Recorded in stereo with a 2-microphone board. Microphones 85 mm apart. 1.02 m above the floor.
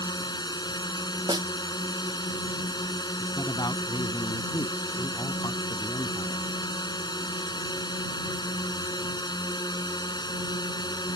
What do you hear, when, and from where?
0.0 s a drone: 55° left (ahead or behind)
1.3 s a snare drum: 55° right (ahead or behind)
3.2 s a man speaking: 55° left (ahead or behind)